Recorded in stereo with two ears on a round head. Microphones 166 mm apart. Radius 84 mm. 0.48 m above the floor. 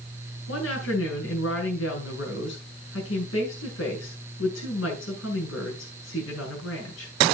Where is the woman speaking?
75° left (ahead or behind), 6.5 m.